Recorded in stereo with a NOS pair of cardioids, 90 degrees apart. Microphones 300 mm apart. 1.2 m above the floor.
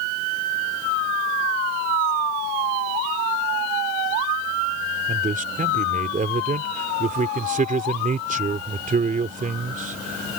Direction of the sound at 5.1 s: 25° right.